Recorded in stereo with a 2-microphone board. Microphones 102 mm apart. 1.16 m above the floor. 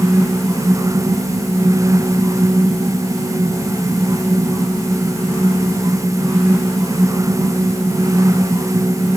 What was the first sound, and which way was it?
Only background noise.